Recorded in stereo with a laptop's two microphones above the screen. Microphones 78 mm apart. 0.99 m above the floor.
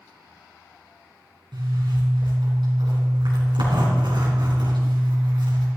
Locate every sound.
1.5 s a zipper: 80° right, 3.5 m